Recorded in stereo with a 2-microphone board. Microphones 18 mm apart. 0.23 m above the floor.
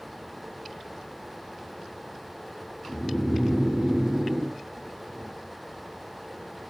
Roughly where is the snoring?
Right.